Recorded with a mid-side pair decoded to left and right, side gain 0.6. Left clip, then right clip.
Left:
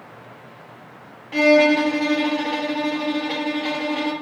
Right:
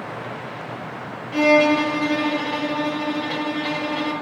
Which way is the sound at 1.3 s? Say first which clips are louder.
Left 1 dB; 15° left.